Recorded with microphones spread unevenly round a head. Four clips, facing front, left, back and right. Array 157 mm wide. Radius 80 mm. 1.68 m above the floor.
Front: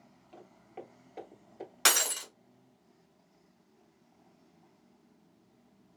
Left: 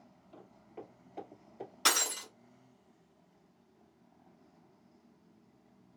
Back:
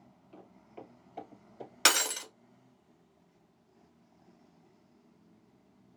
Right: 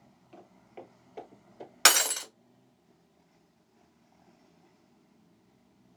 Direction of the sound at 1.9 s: 110° right.